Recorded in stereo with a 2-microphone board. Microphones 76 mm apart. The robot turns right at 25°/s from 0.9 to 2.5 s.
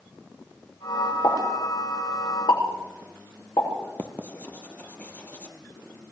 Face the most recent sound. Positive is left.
turn(degrees=20)  # may be behind; listen again after turning